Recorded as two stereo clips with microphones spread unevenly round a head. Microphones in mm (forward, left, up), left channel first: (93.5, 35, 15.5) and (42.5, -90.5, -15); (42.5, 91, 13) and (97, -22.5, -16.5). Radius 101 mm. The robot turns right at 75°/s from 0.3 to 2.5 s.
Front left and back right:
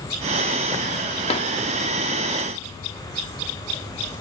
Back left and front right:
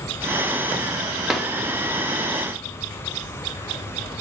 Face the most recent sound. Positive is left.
turn(degrees=115)